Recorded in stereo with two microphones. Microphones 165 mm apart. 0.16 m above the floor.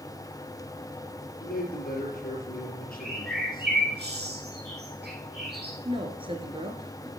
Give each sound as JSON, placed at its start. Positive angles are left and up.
{"t": 1.4, "sound": "a man speaking", "side_deg": 60, "distance_m": 4.5}
{"t": 3.0, "sound": "a bird", "side_deg": -80, "distance_m": 5.0}
{"t": 5.8, "sound": "a woman speaking", "side_deg": -30, "distance_m": 2.5}